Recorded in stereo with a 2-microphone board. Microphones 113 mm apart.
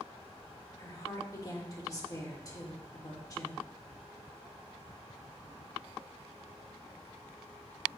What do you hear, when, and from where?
0.8 s a woman speaking: 30° left (ahead or behind), 1.2 m